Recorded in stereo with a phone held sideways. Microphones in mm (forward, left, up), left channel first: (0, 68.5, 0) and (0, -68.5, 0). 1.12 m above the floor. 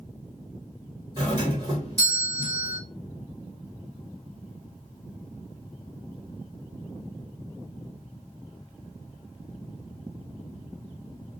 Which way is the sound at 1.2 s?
30° right (ahead or behind).